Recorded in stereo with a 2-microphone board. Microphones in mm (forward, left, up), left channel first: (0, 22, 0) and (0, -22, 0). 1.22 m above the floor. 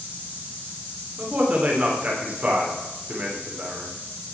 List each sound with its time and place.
1.2 s a man speaking: 35° right (ahead or behind), 3.5 m